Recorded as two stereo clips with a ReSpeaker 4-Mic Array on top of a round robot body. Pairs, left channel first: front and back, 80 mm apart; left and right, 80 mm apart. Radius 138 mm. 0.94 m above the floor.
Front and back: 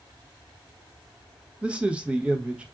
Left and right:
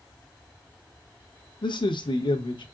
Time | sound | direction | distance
1.6 | a man speaking | 105° left | 1.0 m